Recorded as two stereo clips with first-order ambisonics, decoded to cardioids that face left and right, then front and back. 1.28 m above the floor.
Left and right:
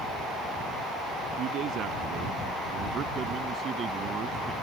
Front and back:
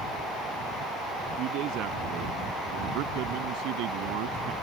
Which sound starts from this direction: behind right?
A man speaking, at 1.4 s.